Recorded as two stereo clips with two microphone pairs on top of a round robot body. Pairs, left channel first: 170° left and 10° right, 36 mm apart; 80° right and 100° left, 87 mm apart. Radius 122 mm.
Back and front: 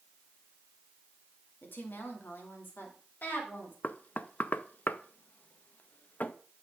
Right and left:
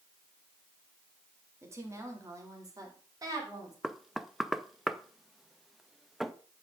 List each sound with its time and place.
1.6 s a woman speaking: 160° left, 1.9 m; by 3.7 s 145° left, 3 m
3.8 s knocking: 160° right, 0.5 m